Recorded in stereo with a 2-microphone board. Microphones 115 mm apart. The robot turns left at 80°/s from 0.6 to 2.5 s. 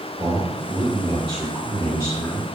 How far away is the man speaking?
About 2.0 m.